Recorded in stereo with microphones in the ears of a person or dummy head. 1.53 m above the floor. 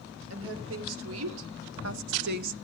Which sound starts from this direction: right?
A woman speaking, at 0.3 s.